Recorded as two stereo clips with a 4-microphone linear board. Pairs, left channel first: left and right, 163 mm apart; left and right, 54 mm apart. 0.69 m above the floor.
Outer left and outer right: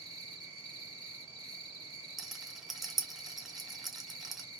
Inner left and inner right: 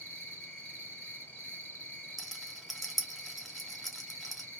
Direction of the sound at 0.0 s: 30° left (ahead or behind).